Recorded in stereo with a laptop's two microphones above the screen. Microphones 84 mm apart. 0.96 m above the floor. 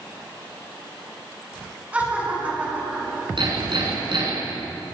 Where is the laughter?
15° right (ahead or behind), 8 m.